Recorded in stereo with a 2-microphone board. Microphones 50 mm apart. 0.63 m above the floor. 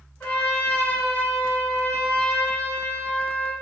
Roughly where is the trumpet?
Left.